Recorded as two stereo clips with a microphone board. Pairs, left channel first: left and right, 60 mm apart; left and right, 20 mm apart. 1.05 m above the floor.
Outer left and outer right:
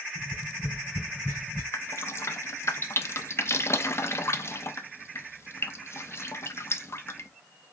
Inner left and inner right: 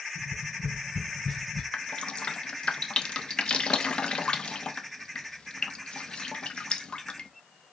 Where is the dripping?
45° left (ahead or behind), 0.6 m.